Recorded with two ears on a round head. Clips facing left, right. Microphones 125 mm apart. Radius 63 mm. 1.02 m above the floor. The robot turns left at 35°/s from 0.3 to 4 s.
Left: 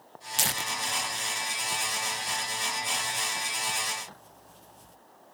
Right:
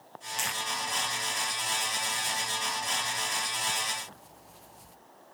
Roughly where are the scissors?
No scissors in this recording.